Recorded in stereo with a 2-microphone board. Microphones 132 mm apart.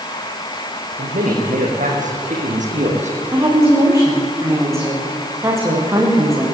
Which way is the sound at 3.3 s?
20° right (ahead or behind).